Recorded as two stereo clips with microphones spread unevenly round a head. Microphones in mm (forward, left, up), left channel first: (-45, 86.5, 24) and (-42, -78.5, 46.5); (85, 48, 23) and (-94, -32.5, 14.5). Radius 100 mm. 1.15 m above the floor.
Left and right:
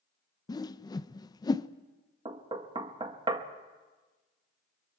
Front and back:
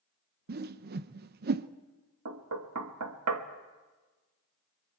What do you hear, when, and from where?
0.5 s a whoosh: 160° left, 0.5 m
2.2 s knocking: 150° right, 1.3 m